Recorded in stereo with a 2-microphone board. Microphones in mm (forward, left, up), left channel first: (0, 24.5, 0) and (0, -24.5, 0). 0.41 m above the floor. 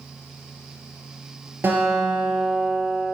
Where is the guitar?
45° right (ahead or behind), 3 m.